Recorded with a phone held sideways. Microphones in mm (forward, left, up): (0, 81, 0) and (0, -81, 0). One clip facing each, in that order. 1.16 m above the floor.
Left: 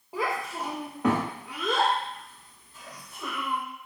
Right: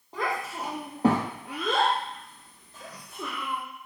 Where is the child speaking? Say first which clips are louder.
Left 1 dB; 10° left (ahead or behind), 0.8 m; by 3.6 s 75° right (ahead or behind), 1.7 m.